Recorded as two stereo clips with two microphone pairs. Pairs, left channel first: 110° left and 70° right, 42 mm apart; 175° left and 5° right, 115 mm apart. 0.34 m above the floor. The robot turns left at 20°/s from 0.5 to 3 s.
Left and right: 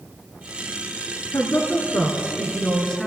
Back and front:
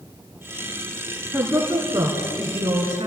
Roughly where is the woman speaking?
Left.